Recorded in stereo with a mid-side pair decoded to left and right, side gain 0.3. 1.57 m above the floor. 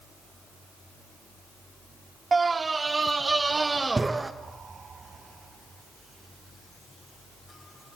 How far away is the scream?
About 0.8 m.